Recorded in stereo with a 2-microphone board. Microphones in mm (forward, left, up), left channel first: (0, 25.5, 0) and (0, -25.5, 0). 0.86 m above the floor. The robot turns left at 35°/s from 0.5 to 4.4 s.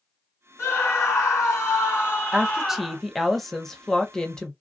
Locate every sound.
0.6 s a scream: 105° left, 2.5 m; by 3.0 s 20° left, 2.5 m
2.3 s a woman speaking: 10° right (ahead or behind), 0.7 m; by 4.5 s 15° left (ahead or behind), 0.7 m